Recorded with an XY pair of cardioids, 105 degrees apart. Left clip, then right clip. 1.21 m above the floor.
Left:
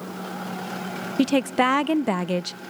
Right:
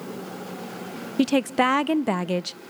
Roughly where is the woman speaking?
Ahead.